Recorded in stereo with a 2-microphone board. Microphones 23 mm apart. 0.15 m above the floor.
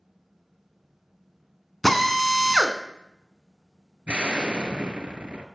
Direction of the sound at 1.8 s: 10° left (ahead or behind).